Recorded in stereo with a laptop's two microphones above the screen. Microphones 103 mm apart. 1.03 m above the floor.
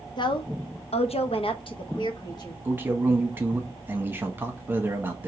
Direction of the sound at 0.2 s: 45° left (ahead or behind).